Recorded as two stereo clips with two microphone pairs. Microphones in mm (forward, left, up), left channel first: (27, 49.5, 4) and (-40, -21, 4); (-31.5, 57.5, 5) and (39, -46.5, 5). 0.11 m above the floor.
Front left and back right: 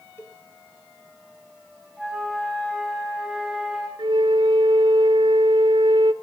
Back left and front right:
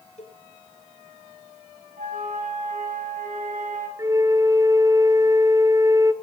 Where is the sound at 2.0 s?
45° right, 3.5 m.